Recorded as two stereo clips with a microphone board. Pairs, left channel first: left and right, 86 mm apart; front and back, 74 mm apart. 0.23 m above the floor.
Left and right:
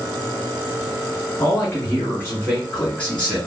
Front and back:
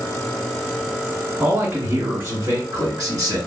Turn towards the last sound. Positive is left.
turn(degrees=170)